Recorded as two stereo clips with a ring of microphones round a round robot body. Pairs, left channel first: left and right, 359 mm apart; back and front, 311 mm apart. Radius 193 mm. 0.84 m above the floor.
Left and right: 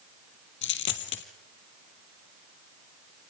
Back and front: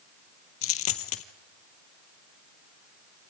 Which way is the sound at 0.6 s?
145° left.